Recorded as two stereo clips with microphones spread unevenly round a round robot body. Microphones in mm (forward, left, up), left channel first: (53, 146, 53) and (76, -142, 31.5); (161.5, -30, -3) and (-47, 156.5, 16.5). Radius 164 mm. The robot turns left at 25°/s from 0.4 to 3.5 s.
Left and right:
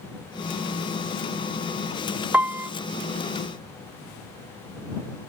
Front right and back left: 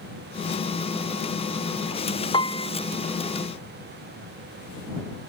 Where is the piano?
20° right; by 2.7 s 30° right.